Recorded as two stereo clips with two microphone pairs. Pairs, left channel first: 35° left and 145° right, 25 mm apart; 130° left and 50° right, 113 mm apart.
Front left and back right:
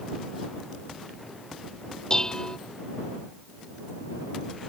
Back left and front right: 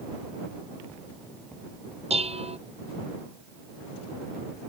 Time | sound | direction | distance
2.1 | dishes clattering | 30° right | ?